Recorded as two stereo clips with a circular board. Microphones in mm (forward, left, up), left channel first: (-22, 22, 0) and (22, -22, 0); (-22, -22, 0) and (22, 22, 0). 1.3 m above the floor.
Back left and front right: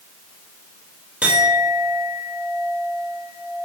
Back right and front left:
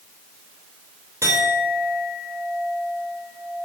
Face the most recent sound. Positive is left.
turn(degrees=25)